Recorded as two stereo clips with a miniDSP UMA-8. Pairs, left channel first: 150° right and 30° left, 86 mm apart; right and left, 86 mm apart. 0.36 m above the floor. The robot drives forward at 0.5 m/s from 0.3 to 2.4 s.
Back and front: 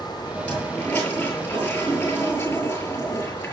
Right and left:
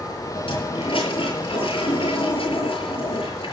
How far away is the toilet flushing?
About 7 m.